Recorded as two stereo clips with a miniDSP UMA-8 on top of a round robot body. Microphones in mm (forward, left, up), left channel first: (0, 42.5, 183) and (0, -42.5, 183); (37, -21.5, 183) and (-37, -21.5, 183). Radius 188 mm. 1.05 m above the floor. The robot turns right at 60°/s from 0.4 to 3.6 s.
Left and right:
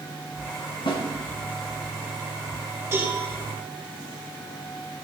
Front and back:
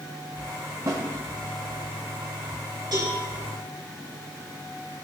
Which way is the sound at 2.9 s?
155° right.